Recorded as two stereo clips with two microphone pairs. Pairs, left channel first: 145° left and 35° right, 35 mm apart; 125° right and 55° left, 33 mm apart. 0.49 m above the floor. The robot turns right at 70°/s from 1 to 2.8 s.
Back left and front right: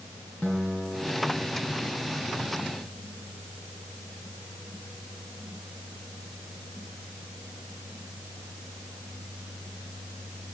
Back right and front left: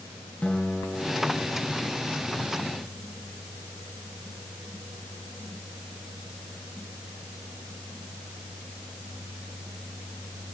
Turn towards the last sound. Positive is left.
turn(degrees=-45)